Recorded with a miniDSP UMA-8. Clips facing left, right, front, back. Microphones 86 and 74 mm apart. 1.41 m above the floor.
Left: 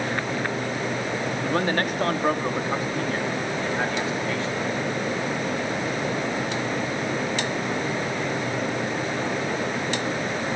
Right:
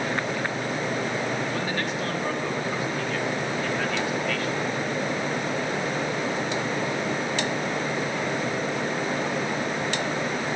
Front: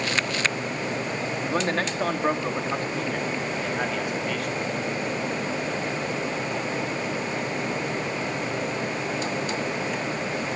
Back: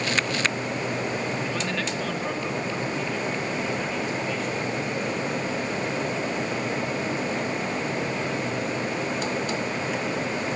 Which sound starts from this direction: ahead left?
A man speaking, at 1.4 s.